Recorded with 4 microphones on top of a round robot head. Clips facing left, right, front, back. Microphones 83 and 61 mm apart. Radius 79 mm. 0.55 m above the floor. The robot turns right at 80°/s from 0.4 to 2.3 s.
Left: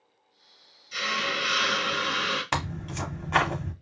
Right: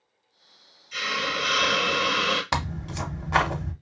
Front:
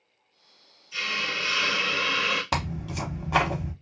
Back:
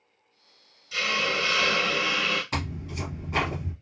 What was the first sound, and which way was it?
A hiss, 165° left.